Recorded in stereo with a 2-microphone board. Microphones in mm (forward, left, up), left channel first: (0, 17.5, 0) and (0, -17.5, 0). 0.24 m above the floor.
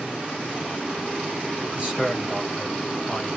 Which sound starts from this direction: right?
A man speaking, at 1.6 s.